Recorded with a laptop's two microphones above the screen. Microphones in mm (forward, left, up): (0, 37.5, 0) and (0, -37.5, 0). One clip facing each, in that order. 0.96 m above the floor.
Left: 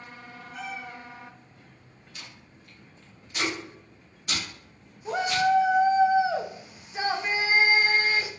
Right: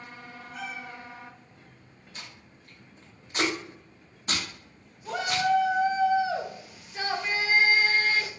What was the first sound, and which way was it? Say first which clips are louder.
A cat meowing: left 1 dB; 10° left (ahead or behind).